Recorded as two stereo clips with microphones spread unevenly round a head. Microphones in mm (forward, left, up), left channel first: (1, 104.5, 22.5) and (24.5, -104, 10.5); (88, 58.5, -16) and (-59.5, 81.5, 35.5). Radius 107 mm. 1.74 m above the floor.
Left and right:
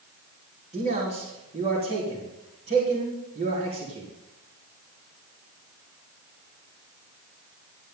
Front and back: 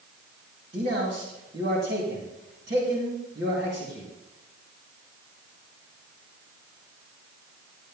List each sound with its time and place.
0.7 s a man speaking: 145° right, 4 m